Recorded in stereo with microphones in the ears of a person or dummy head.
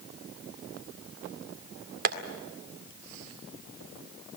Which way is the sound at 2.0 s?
55° right (ahead or behind).